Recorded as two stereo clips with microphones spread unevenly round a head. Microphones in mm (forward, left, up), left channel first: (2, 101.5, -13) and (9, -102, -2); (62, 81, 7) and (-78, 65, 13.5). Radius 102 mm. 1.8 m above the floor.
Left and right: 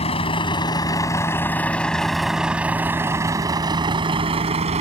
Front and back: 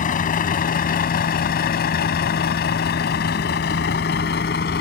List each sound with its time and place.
0.0 s a vehicle: 30° left; by 4.8 s 30° right